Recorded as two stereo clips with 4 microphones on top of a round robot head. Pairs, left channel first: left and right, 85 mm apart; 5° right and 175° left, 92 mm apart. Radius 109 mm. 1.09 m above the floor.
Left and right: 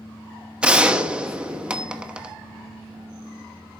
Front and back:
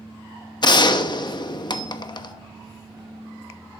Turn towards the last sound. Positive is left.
turn(degrees=-15)